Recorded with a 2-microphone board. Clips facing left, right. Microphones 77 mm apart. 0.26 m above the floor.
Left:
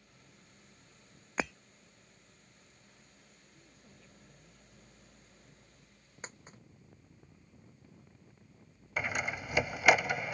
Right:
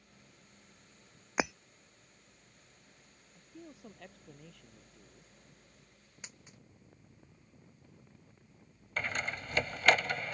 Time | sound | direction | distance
1.4 | breaking glass | 10° right (ahead or behind) | ?
3.3 | a man speaking | 70° right (ahead or behind) | ?
6.2 | a dropped coin | 40° left (ahead or behind) | ?
9.0 | a door slam | 10° left (ahead or behind) | ?